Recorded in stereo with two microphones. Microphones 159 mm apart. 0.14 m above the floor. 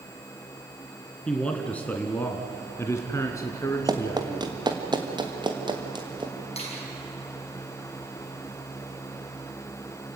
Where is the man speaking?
5° left (ahead or behind), 2 m; by 4.5 s 20° left (ahead or behind), 2.5 m.